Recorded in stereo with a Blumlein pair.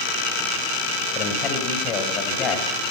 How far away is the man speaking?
About 5.5 m.